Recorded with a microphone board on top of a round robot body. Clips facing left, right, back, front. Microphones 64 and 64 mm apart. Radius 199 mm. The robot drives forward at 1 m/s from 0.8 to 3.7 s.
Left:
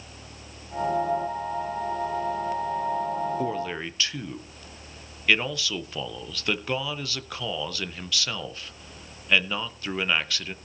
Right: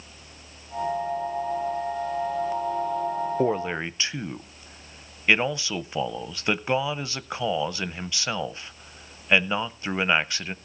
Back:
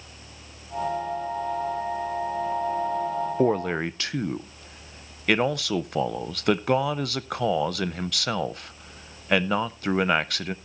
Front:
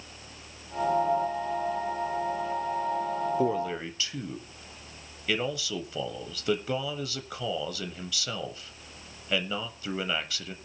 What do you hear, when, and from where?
3.4 s a man speaking: 140° right, 0.6 m; by 10.6 s 155° right, 0.8 m